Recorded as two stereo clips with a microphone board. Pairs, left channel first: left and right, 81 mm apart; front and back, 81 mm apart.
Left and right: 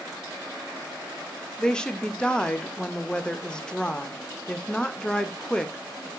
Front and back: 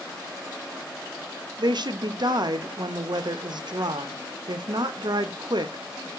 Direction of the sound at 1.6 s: 170° left.